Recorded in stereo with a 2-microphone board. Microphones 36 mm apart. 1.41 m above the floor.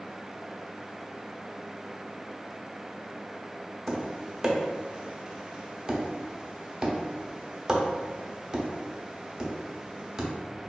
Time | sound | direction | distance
3.9 | tapping | 20° right (ahead or behind) | 0.6 m